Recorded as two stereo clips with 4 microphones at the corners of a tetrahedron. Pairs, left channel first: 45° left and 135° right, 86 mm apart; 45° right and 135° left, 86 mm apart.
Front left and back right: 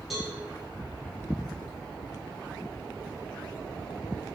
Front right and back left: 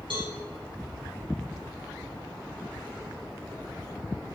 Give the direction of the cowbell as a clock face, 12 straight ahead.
7 o'clock.